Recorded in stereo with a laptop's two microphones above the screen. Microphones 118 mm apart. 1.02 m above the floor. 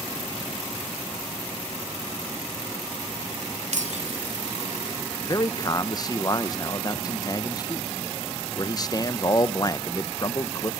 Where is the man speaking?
30° left (ahead or behind), 0.5 m.